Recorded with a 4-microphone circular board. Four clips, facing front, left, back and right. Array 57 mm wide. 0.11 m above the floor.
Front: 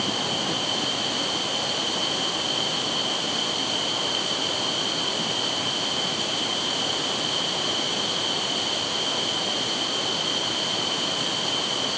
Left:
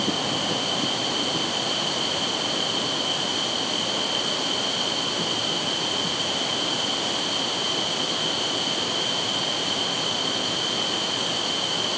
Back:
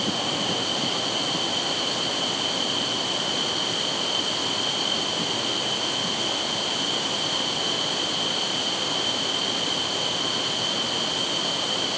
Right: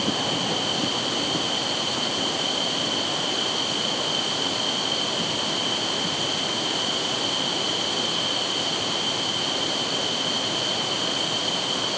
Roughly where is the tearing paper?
I don't hear tearing paper.